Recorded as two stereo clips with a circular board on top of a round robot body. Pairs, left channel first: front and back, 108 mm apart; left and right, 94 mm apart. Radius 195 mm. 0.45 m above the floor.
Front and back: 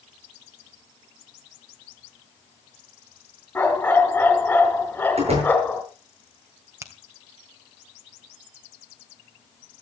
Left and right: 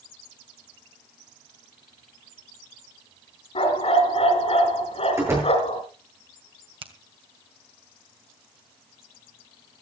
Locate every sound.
3.5 s a dog barking: 80° left, 3.5 m
5.2 s a door slam: 155° right, 9.5 m
6.8 s a finger snap: 115° right, 2.5 m